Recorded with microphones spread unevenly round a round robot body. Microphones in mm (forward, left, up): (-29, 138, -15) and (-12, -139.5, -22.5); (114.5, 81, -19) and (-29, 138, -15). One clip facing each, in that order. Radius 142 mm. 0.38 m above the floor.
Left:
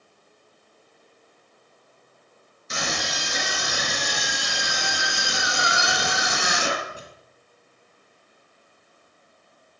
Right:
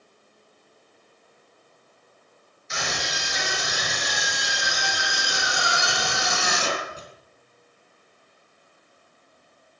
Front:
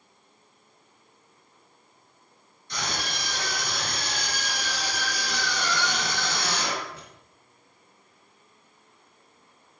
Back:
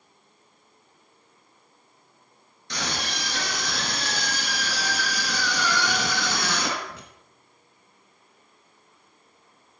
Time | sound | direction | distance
2.7 | a scream | 145° left | 5 m